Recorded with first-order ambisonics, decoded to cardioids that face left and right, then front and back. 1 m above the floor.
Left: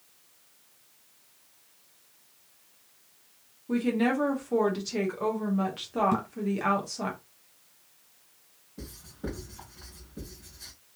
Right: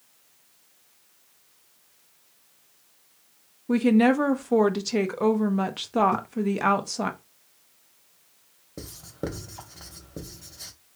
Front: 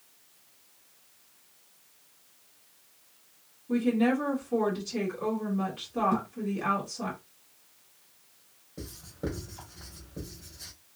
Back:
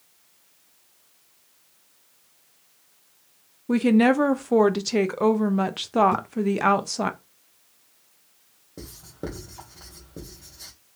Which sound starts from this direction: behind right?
A woman speaking, at 3.7 s.